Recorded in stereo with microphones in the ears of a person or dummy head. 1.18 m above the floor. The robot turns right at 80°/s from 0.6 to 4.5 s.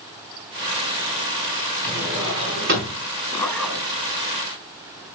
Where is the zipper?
160° left, 1.2 m; by 3.9 s 155° right, 1.2 m.